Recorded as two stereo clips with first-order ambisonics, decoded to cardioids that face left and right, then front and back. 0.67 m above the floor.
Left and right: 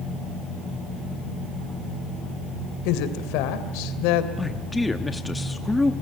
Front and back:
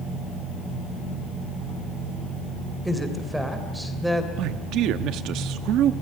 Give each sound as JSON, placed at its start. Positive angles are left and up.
{"t": 2.9, "sound": "a woman speaking", "azimuth_deg": 95, "distance_m": 2.5}
{"t": 4.4, "sound": "a man speaking", "azimuth_deg": 175, "distance_m": 0.7}